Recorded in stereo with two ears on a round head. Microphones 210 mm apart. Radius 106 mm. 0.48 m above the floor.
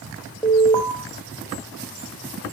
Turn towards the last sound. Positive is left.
turn(degrees=10)  # may be behind; listen again after turning